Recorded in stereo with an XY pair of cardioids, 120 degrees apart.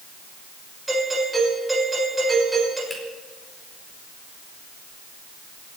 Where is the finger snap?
5° right, 4.5 m.